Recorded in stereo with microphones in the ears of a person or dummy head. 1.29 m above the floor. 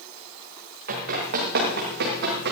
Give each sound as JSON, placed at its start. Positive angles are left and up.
{"t": 0.9, "sound": "running footsteps", "side_deg": -50, "distance_m": 5.5}